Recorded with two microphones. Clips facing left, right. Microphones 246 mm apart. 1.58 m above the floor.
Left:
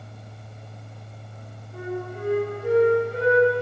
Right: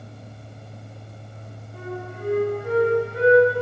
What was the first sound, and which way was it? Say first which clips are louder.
A flute: left 3 dB; 55° left (ahead or behind).